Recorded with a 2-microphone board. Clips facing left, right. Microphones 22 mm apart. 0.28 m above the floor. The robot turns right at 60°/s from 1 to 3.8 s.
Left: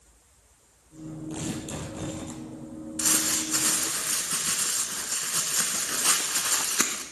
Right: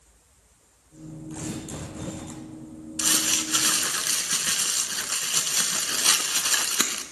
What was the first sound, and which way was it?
Tearing paper, 110° left.